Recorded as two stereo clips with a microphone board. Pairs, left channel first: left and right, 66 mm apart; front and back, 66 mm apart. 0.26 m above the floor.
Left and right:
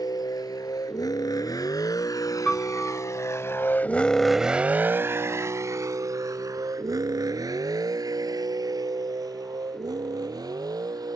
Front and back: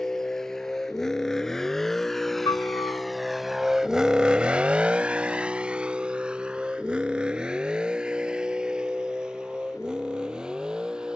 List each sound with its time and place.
0.0 s a vehicle: 80° left; by 11.2 s 100° right
2.5 s a piano: 10° left